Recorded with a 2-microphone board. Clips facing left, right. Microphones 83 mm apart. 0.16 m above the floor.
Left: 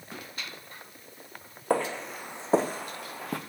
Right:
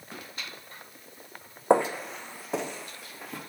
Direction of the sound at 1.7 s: 25° right (ahead or behind).